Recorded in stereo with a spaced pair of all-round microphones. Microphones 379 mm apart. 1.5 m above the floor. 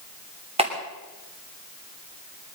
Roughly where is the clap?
Centre.